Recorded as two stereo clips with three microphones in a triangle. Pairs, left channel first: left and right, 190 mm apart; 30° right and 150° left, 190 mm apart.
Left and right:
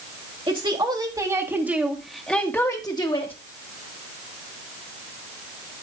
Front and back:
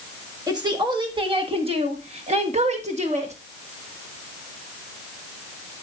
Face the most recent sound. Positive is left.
turn(degrees=130)